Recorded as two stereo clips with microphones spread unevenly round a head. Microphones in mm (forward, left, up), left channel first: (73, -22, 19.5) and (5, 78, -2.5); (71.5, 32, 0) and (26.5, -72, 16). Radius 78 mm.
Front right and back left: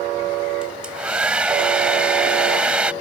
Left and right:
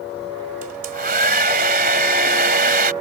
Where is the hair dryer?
150° right.